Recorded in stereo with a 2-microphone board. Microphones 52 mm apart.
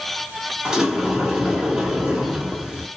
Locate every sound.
0.7 s a sliding door: 10° right (ahead or behind), 0.9 m